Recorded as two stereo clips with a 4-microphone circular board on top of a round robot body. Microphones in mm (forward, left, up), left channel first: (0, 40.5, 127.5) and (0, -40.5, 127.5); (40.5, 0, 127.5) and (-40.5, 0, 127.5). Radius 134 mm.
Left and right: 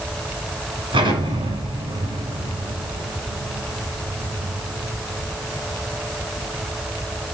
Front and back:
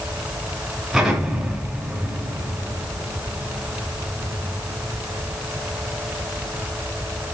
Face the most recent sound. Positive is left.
turn(degrees=-95)